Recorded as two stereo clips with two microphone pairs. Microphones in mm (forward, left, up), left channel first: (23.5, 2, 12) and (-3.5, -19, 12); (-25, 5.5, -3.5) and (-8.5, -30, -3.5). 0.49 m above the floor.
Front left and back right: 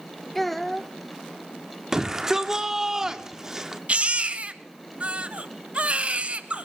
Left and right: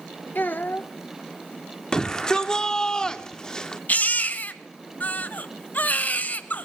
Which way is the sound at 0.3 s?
120° left.